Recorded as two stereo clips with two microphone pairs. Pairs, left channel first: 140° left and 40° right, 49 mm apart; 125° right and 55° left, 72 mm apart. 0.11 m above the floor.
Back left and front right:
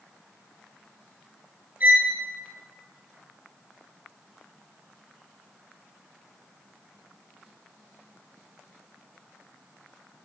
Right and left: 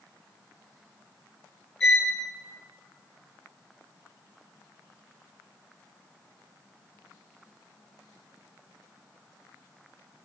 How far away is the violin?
About 1.6 m.